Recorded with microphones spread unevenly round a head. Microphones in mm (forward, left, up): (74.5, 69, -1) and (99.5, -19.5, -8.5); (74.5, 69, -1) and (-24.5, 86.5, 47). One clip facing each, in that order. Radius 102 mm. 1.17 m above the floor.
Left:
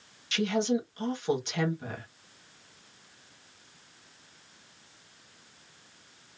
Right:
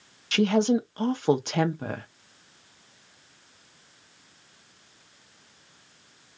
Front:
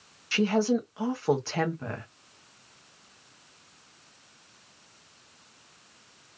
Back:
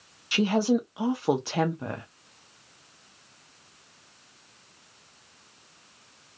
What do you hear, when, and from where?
0.3 s a woman speaking: 95° right, 0.6 m